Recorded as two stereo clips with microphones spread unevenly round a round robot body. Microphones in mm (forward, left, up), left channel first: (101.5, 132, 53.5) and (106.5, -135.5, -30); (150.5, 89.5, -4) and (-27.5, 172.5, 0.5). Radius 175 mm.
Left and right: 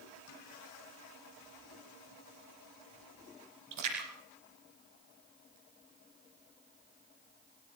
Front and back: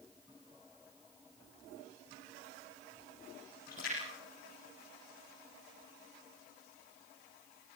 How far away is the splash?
About 6.5 m.